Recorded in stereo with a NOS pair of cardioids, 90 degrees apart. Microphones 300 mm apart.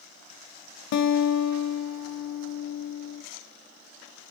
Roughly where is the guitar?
Ahead left.